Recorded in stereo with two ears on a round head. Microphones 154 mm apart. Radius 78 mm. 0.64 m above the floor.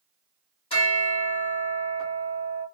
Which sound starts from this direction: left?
A bell, at 0.7 s.